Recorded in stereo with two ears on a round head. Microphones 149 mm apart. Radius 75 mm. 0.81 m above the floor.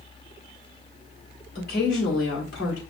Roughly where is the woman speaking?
Left.